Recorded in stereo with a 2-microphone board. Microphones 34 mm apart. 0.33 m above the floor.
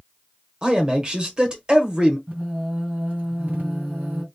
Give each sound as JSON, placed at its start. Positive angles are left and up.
{"t": 0.6, "sound": "a man speaking", "side_deg": -25, "distance_m": 1.0}
{"t": 2.3, "sound": "singing", "side_deg": -45, "distance_m": 2.0}